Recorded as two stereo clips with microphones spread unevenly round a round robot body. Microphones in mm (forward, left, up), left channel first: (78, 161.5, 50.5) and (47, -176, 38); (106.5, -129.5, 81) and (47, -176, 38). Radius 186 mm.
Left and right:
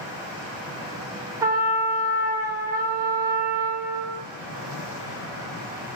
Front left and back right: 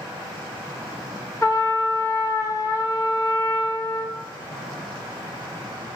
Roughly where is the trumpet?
Ahead right.